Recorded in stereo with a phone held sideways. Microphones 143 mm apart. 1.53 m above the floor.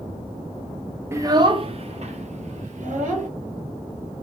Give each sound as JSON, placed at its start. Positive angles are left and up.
{"t": 1.1, "sound": "a child speaking", "side_deg": -20, "distance_m": 0.5}